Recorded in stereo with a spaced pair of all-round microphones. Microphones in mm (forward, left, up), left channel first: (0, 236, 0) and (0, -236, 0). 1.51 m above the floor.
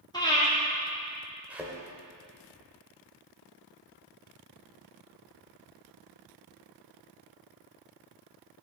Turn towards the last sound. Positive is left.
turn(degrees=-5)  # may be behind; listen again after turning